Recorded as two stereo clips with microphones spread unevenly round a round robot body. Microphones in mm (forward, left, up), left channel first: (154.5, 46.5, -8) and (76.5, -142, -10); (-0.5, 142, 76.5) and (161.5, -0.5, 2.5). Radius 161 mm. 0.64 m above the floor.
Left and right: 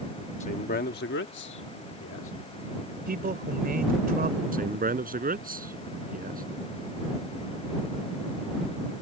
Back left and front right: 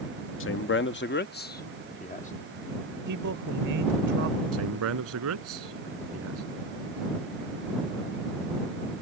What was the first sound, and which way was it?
A man speaking, 115° left.